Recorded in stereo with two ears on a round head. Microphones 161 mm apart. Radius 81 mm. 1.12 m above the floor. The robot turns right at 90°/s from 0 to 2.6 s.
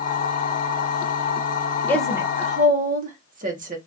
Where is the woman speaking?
165° left, 1.3 m; by 3.8 s 130° right, 1.3 m.